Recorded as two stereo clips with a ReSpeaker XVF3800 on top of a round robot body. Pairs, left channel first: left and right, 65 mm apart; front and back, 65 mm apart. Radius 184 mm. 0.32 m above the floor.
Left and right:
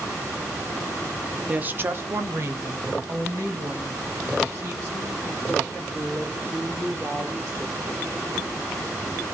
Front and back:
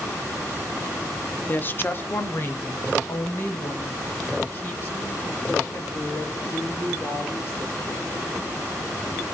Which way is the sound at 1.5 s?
35° right.